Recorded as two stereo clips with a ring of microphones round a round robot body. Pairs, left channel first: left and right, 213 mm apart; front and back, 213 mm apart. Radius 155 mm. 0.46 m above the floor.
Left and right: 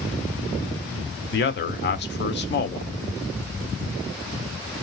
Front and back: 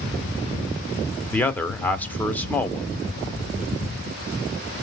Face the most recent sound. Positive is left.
turn(degrees=80)